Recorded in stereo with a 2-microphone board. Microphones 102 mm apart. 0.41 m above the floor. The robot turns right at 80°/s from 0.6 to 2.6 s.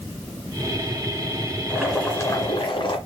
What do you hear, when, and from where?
1.7 s boiling: 15° right, 2 m; by 3.0 s 60° left, 2 m